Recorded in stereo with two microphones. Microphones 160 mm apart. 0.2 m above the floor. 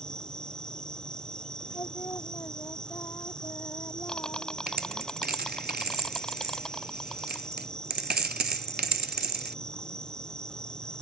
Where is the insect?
5° left (ahead or behind).